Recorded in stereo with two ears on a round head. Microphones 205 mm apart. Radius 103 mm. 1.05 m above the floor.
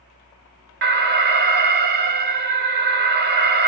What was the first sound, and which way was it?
An alarm, 45° right (ahead or behind).